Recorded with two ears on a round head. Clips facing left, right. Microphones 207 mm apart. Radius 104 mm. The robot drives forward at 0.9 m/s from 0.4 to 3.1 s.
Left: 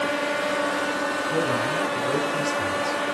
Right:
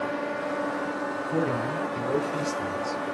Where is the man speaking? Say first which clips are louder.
Even; 5° left (ahead or behind), 3 m.